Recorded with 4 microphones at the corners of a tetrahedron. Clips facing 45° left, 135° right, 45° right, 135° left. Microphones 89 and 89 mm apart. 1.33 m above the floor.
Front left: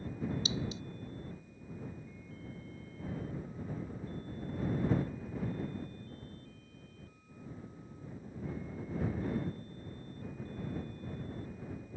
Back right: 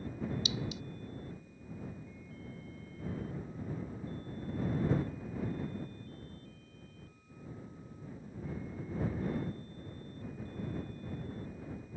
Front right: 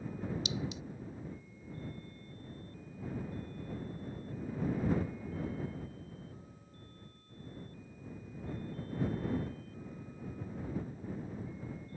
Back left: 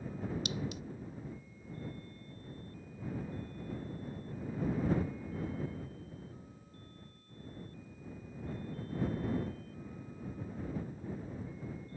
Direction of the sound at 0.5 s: 100° left.